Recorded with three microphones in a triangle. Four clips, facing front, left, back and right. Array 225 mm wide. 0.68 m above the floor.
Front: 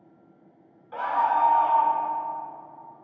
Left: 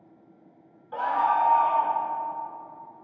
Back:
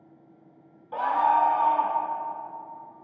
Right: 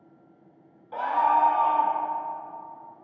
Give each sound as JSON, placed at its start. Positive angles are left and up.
{"t": 0.9, "sound": "a scream", "azimuth_deg": -170, "distance_m": 1.1}